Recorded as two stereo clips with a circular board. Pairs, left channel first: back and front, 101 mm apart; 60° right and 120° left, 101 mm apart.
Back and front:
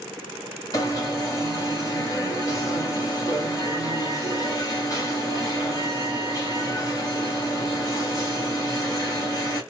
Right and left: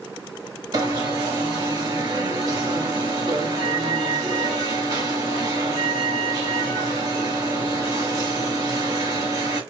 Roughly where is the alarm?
Behind left.